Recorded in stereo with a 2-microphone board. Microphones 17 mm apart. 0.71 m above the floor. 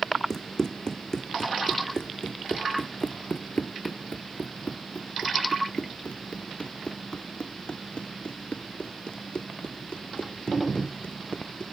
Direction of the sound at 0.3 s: 30° left (ahead or behind).